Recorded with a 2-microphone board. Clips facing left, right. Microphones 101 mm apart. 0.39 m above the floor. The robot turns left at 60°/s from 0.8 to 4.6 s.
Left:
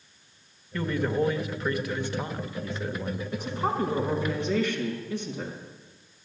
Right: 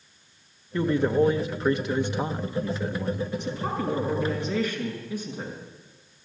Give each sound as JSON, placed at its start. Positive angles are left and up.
{"t": 0.7, "sound": "a man speaking", "azimuth_deg": -55, "distance_m": 0.8}
{"t": 3.3, "sound": "a woman speaking", "azimuth_deg": 65, "distance_m": 4.5}